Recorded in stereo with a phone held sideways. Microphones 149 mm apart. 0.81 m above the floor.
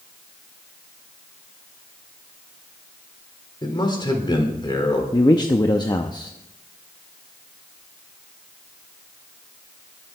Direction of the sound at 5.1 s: 30° left (ahead or behind).